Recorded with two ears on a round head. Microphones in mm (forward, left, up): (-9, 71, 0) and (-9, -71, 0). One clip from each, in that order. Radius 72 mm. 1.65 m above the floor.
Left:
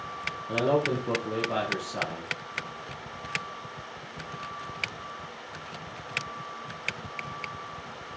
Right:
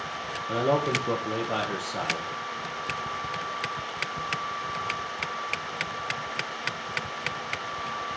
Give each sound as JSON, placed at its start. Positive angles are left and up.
{"t": 0.5, "sound": "a man speaking", "side_deg": -20, "distance_m": 1.8}